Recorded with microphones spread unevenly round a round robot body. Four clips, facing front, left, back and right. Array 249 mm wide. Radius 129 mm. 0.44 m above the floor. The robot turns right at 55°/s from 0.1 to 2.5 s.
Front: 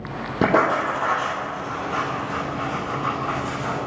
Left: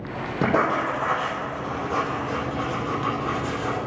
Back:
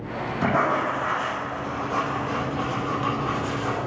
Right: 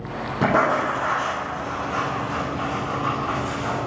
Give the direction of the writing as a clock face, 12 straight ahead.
12 o'clock.